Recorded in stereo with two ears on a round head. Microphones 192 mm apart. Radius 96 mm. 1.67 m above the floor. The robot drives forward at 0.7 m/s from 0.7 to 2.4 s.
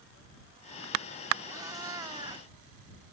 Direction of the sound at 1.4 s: 15° right (ahead or behind).